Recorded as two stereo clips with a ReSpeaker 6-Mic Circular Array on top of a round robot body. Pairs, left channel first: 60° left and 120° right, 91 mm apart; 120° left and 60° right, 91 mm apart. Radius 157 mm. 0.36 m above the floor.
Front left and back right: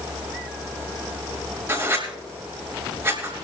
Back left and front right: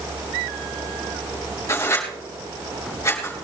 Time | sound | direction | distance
1.7 | writing | straight behind | 6 m